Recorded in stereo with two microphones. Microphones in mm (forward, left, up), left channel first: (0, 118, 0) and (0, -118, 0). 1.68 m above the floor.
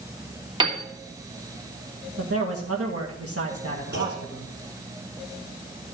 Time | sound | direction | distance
0.6 | a piano | 20° right (ahead or behind) | 1.7 m
2.2 | a man speaking | 75° right (ahead or behind) | 1.9 m
3.9 | a clunk | 45° right (ahead or behind) | 6.5 m